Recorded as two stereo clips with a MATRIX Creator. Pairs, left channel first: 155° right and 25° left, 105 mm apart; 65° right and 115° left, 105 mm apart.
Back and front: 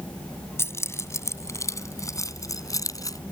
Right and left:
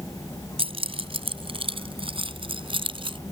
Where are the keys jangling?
135° left; by 3.2 s 145° left.